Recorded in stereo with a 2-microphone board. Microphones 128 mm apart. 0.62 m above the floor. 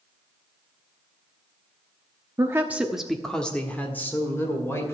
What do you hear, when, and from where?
2.4 s a woman speaking: 25° right (ahead or behind), 0.9 m; by 4.9 s 20° left (ahead or behind), 2.5 m